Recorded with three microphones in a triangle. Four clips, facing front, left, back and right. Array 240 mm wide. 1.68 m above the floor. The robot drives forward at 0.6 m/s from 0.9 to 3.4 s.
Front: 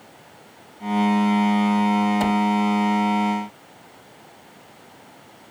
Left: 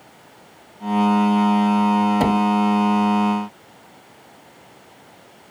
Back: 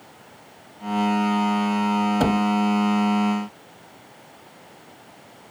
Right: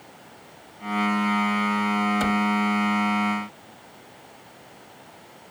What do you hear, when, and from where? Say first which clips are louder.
2.2 s a cupboard door: left 6 dB, even; 130° left; by 2.4 s 135° left